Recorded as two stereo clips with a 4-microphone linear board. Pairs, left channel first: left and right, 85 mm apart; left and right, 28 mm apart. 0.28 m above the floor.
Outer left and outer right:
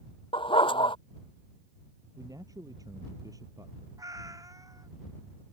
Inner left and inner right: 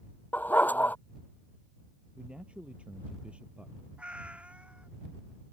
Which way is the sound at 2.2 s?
45° right (ahead or behind).